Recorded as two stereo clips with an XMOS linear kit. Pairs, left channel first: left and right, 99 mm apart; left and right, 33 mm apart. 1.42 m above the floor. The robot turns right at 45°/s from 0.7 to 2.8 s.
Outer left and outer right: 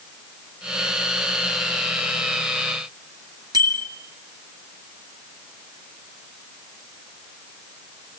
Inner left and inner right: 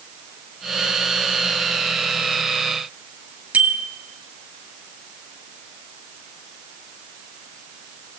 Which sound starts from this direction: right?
A bicycle bell, at 3.5 s.